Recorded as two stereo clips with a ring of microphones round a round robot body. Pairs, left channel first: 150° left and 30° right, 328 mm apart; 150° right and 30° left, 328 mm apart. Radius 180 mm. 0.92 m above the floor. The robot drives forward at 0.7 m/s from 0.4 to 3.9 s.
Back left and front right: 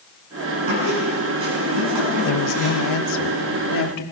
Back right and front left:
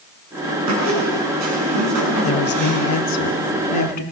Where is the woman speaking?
165° left, 1.2 m; by 4.0 s 175° left, 2 m.